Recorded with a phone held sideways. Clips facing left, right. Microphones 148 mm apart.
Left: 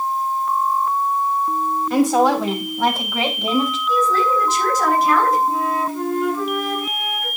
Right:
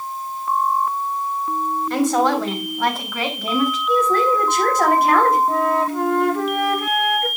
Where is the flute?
70° right (ahead or behind), 1.6 m.